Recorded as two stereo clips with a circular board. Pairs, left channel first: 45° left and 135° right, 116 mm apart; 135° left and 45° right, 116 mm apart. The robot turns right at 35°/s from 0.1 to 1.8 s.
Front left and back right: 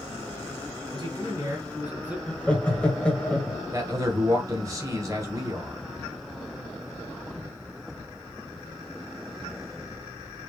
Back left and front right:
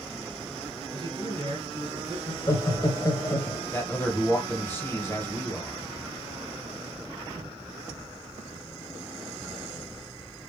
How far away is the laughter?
About 1.4 m.